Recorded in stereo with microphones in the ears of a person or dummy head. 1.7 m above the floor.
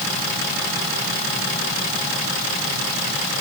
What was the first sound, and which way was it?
Only background noise.